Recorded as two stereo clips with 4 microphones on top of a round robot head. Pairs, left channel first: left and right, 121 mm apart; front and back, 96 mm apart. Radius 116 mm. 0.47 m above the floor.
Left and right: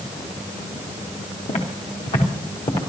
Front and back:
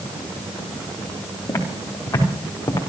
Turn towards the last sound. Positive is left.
turn(degrees=60)